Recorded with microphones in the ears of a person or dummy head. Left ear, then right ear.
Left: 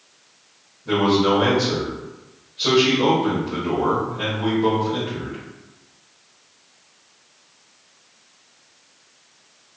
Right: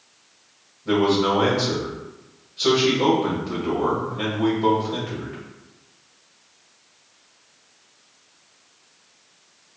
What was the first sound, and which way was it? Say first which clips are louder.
A man speaking: left 1 dB; 35° right (ahead or behind).